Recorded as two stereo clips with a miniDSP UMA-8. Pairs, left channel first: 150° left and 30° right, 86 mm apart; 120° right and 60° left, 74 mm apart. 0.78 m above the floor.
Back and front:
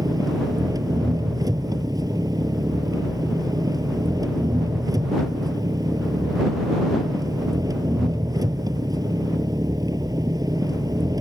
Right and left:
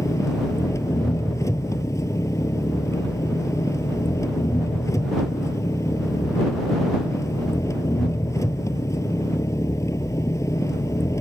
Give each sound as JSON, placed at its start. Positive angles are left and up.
{"t": 0.0, "sound": "an engine running", "azimuth_deg": -75}